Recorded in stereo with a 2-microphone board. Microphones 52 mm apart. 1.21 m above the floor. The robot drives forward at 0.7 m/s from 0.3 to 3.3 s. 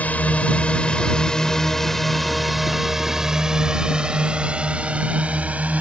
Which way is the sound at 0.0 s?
30° left (ahead or behind).